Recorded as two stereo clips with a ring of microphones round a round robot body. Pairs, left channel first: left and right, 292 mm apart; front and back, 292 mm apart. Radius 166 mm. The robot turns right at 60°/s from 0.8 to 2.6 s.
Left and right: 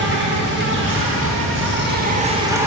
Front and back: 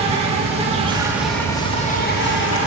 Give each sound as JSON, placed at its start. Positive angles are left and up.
{"t": 0.0, "sound": "an insect", "azimuth_deg": -120, "distance_m": 1.6}